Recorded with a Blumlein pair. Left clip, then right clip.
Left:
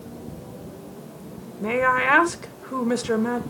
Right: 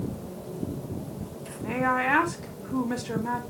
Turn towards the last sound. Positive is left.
turn(degrees=45)